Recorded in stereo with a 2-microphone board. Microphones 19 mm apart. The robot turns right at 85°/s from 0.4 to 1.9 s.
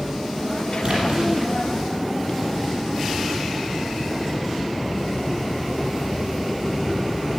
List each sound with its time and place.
0.8 s a splash: 125° right, 6.5 m; by 1.2 s 90° right, 6.5 m